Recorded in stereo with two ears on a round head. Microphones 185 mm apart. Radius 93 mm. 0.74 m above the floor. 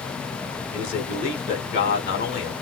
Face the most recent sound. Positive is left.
turn(degrees=45)  # may be behind; listen again after turning